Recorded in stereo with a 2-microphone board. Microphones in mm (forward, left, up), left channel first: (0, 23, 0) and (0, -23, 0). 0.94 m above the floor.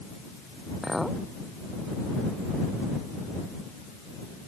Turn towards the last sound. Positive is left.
turn(degrees=-5)  # may be behind; listen again after turning